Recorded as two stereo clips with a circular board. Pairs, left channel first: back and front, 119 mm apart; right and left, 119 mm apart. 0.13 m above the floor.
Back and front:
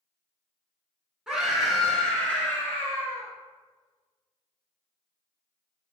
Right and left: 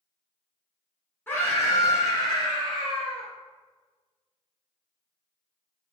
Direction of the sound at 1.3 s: 70° right.